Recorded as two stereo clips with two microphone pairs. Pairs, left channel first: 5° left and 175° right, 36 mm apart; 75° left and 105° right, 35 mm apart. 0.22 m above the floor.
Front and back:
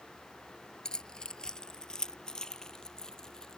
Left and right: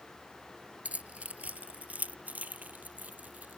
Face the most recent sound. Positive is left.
turn(degrees=-70)